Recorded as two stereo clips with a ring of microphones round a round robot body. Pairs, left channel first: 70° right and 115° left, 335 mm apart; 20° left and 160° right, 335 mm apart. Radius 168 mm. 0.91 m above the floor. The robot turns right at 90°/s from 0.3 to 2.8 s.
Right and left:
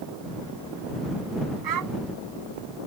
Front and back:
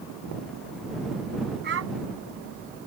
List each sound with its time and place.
1.6 s a child speaking: 140° left; by 1.9 s 165° left